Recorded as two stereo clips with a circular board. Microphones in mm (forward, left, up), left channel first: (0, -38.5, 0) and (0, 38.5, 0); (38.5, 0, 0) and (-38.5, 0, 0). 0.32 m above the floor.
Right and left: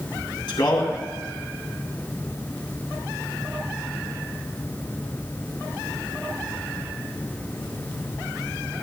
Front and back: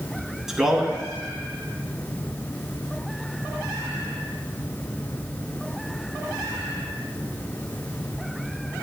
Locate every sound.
0.5 s a man speaking: 95° right, 2.5 m